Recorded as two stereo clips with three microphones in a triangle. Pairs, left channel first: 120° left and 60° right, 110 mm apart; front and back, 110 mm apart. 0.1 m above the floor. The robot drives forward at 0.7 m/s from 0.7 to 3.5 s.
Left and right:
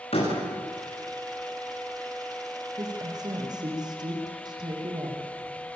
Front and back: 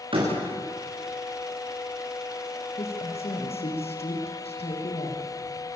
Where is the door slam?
145° left, 9.5 m.